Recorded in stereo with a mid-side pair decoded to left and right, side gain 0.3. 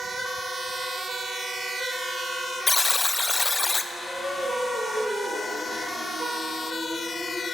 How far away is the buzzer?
About 0.7 m.